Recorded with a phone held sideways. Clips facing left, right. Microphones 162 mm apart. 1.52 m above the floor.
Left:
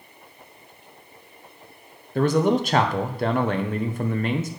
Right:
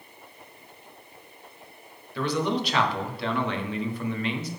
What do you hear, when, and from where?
2.1 s a man speaking: 45° left (ahead or behind), 0.9 m